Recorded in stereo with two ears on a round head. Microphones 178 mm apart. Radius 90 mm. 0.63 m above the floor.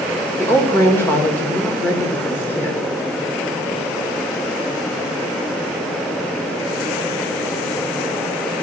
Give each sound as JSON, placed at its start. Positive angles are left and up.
{"t": 0.4, "sound": "a woman speaking", "side_deg": 10, "distance_m": 1.8}